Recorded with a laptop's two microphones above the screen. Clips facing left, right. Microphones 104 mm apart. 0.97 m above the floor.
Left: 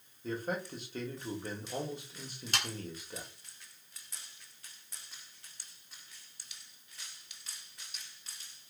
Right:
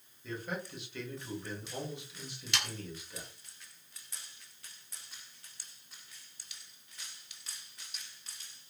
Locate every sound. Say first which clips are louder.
0.2 s a man speaking: left 3 dB; 40° left (ahead or behind), 1.3 m
2.5 s sawing: left 1 dB; 40° left (ahead or behind), 0.7 m